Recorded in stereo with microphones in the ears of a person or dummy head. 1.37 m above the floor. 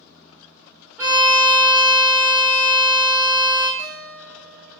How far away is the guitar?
About 0.7 m.